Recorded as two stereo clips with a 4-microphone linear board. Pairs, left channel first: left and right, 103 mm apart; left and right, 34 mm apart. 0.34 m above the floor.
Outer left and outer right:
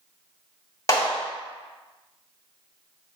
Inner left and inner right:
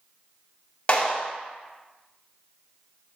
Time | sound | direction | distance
0.9 | a clap | 35° left (ahead or behind) | 1.6 m